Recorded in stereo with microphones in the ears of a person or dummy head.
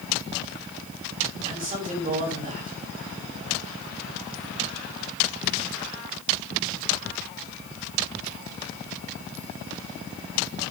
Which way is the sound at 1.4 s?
40° right (ahead or behind).